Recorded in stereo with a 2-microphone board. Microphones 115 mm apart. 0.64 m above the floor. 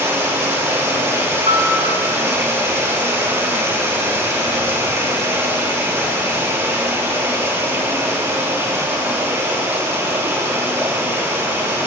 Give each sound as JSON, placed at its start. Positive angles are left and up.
{"t": 0.0, "sound": "running water", "side_deg": -25, "distance_m": 5.0}
{"t": 1.5, "sound": "a piano", "side_deg": -75, "distance_m": 2.0}